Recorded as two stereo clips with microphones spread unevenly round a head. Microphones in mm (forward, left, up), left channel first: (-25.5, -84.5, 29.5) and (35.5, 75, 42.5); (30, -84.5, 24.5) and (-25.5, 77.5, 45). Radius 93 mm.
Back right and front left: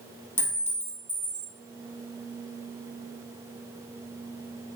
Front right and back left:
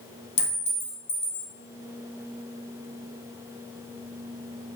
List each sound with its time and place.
0.4 s a clink: 30° right, 1.1 m